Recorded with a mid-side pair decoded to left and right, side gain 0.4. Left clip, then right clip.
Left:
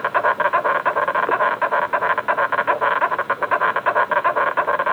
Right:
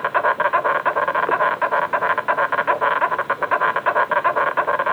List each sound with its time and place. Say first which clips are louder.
0.0 s an insect: even; straight ahead, 1.0 m